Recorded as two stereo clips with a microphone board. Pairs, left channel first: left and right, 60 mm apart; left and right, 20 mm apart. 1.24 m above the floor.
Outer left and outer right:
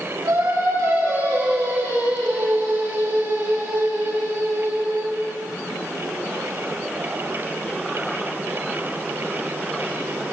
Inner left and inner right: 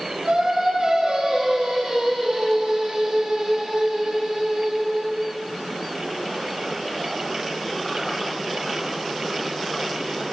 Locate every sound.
0.2 s singing: 75° right (ahead or behind), 9.5 m